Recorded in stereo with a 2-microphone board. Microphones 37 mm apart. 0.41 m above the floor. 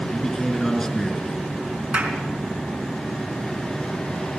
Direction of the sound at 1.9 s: 25° right (ahead or behind).